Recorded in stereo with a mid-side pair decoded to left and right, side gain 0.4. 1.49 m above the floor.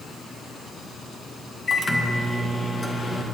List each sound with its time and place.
1.7 s a microwave: 35° left, 1.6 m